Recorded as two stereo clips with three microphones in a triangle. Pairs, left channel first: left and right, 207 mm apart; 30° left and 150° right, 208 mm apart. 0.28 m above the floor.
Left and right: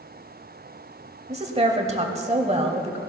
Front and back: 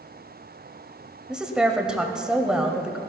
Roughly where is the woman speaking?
Ahead right.